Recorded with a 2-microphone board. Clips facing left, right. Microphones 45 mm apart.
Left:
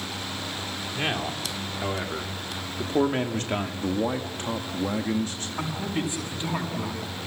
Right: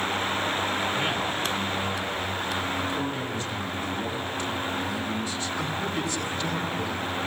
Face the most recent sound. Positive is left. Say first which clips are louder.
# left 2 dB
turn(degrees=20)  # may be behind; listen again after turning